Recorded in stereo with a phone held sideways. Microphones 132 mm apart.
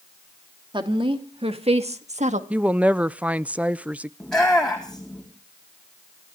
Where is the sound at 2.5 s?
10° right (ahead or behind), 0.5 m.